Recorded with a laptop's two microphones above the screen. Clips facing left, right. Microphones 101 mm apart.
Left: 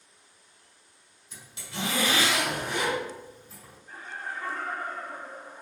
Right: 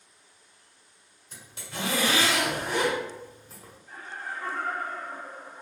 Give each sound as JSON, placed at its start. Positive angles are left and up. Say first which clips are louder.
{"t": 1.3, "sound": "a zipper", "louder": "even", "side_deg": -40, "distance_m": 1.8}
{"t": 3.9, "sound": "laughter", "louder": "even", "side_deg": 10, "distance_m": 1.3}